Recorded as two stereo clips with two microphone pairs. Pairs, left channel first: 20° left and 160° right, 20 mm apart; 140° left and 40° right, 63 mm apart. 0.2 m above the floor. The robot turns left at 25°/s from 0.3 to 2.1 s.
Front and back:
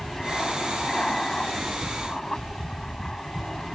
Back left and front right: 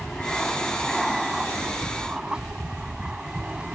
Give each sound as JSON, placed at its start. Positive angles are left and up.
{"t": 0.0, "sound": "an aircraft", "azimuth_deg": 70}